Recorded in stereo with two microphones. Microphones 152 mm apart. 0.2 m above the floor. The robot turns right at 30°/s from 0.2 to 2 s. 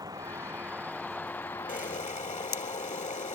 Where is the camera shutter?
65° left (ahead or behind); by 3.4 s 60° left (ahead or behind).